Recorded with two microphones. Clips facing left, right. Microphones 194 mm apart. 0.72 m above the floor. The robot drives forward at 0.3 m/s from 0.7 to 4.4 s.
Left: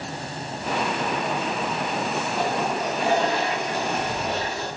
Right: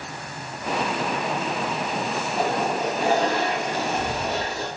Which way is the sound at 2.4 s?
50° right (ahead or behind).